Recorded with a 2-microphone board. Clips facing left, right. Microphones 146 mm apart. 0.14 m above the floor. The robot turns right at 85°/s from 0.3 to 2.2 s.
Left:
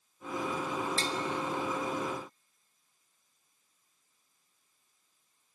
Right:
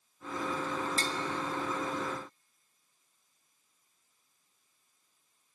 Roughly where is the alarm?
No alarm in this recording.